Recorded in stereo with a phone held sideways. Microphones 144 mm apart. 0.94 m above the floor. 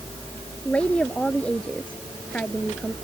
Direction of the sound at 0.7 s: 10° left (ahead or behind).